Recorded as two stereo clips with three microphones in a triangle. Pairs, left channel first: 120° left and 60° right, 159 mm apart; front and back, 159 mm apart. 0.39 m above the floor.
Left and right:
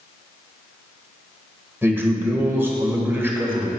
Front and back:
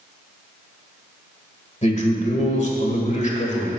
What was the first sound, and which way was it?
A man speaking, 10° left.